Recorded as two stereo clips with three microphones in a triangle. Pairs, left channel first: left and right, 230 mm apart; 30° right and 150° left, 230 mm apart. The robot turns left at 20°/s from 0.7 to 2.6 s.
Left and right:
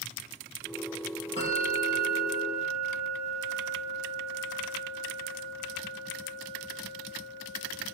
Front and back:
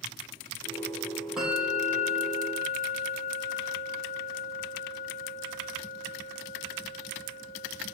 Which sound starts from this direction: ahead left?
A bell, at 1.4 s.